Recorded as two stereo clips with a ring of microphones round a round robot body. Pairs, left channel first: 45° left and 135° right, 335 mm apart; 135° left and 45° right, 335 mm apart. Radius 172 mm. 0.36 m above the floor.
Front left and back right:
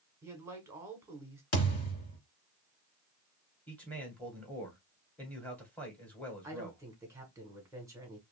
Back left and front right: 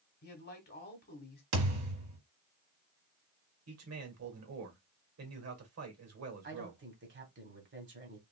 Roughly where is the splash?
No splash in this recording.